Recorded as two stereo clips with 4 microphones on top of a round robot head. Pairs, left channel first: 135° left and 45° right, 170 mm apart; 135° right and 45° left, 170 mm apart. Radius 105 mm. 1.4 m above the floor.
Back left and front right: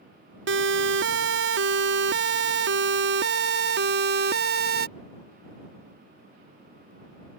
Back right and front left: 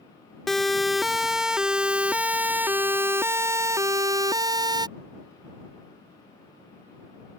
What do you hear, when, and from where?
0.5 s a siren: 45° right; by 4.9 s 20° right